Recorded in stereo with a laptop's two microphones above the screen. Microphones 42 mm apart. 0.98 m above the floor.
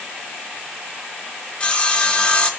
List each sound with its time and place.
1.6 s sawing: 30° left (ahead or behind), 2 m